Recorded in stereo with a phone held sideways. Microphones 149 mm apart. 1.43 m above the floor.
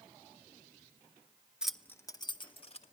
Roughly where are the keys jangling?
Centre.